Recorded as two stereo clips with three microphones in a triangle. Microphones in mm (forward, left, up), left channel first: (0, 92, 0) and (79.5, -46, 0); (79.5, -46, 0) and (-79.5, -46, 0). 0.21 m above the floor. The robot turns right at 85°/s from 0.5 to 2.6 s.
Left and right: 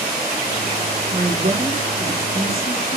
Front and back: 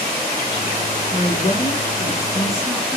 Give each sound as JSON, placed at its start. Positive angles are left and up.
{"t": 1.1, "sound": "a woman speaking", "azimuth_deg": -50, "distance_m": 3.0}